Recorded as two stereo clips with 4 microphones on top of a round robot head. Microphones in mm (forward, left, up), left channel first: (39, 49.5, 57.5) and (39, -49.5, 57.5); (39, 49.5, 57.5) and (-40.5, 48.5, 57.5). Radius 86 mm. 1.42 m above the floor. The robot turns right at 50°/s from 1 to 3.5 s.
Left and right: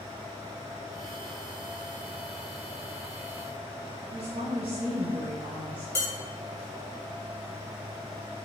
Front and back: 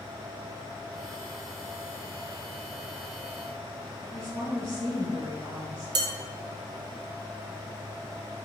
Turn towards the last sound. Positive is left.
turn(degrees=165)